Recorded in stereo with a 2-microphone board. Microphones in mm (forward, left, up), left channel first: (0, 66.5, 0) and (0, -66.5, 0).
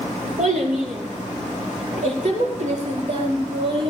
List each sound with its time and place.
0.4 s a child speaking: 85° right, 5 m; by 3.9 s 45° right (ahead or behind), 4.5 m